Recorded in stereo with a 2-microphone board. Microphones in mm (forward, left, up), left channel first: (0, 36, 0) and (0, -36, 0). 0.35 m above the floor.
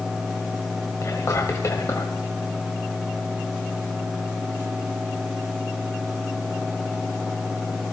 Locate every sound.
1.0 s whispering: 50° left (ahead or behind), 1.9 m